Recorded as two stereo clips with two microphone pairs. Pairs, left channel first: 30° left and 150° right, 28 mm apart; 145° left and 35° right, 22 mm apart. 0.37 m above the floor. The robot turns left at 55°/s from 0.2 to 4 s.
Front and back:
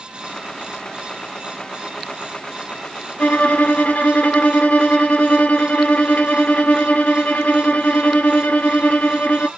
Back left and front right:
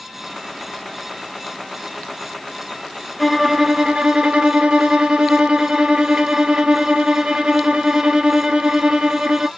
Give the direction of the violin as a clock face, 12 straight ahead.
10 o'clock.